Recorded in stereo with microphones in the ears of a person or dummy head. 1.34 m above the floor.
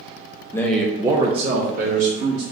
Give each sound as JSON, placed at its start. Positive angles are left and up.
{"t": 0.5, "sound": "a man speaking", "side_deg": 10, "distance_m": 0.7}